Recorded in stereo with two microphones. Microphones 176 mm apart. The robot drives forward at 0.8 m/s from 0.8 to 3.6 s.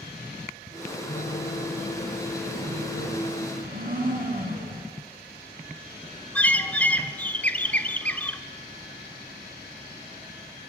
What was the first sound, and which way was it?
A piano, 65° left (ahead or behind).